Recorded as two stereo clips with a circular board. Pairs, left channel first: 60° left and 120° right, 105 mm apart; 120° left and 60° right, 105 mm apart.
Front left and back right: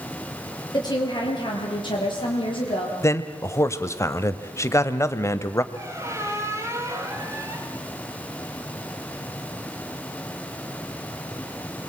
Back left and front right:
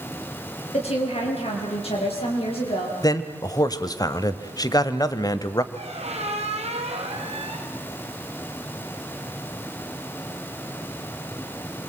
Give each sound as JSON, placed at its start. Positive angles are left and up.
{"t": 0.7, "sound": "a woman speaking", "azimuth_deg": 110, "distance_m": 6.5}
{"t": 3.0, "sound": "a man speaking", "azimuth_deg": 100, "distance_m": 1.1}
{"t": 5.7, "sound": "a squeak", "azimuth_deg": -55, "distance_m": 2.5}